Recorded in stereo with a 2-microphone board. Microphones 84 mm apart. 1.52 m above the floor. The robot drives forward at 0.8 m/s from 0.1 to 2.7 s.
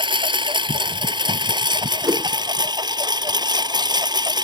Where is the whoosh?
45° right (ahead or behind); by 2.3 s 35° right (ahead or behind).